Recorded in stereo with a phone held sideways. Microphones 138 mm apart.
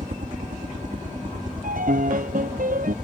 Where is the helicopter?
65° right (ahead or behind); by 3.0 s 75° right (ahead or behind).